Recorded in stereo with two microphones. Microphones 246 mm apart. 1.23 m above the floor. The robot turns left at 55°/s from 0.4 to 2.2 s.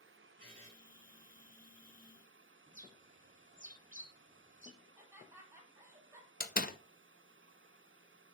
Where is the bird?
30° right (ahead or behind), 1.0 m.